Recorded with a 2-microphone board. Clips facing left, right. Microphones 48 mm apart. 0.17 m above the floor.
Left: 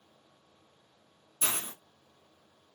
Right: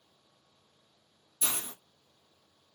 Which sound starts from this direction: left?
A hiss, at 1.4 s.